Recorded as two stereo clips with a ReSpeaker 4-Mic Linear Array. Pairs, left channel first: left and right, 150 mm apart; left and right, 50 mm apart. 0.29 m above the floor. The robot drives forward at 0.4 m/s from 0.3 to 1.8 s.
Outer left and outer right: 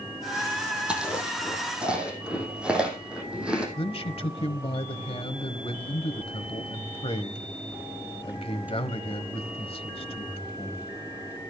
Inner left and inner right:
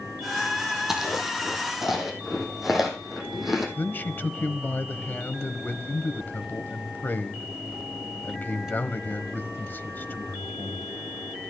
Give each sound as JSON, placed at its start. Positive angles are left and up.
{"t": 0.9, "sound": "chewing", "side_deg": -5, "distance_m": 3.0}
{"t": 3.8, "sound": "a man speaking", "side_deg": 40, "distance_m": 1.1}